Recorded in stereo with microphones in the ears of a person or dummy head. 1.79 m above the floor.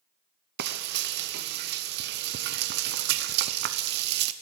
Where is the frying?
55° right (ahead or behind), 0.8 m.